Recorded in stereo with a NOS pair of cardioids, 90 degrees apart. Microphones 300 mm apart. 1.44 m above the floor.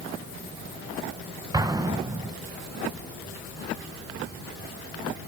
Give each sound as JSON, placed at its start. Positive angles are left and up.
{"t": 1.5, "sound": "an explosion", "azimuth_deg": -10, "distance_m": 1.1}